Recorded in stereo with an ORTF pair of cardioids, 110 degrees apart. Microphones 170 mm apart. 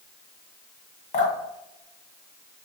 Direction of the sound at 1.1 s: 45° left.